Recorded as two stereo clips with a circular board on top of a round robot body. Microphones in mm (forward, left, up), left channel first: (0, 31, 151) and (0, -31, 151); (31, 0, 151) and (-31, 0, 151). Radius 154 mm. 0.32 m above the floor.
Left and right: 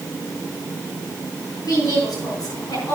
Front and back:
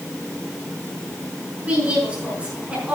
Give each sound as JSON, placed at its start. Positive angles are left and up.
{"t": 1.6, "sound": "a woman speaking", "azimuth_deg": 110, "distance_m": 6.0}